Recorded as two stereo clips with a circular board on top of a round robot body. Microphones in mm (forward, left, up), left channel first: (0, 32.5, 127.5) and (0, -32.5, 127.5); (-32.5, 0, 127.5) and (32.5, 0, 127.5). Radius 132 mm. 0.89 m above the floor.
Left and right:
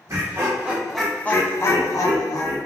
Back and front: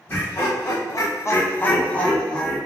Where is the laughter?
135° right, 0.7 m; by 2.6 s 100° left, 0.9 m.